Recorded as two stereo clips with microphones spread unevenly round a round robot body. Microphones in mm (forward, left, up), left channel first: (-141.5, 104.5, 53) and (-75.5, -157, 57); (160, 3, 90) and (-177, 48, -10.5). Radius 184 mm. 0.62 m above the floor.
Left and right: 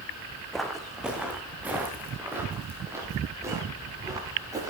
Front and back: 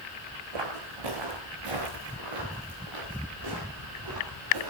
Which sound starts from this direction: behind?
Footsteps, at 0.5 s.